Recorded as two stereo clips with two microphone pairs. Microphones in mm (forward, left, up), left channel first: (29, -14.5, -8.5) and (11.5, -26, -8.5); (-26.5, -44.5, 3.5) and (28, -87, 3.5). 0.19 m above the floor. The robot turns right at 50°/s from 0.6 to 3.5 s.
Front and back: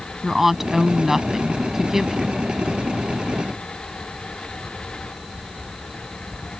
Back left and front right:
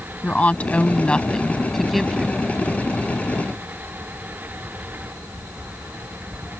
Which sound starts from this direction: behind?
A woman speaking, at 0.2 s.